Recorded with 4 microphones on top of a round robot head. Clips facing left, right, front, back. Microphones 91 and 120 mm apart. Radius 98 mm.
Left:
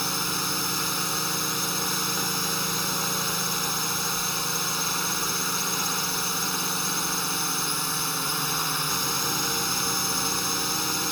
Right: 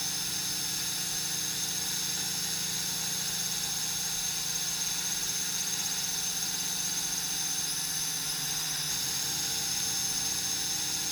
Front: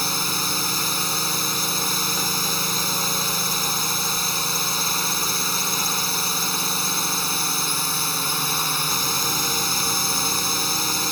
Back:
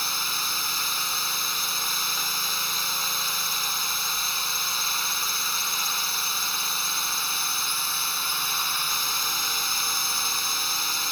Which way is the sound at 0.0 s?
40° left.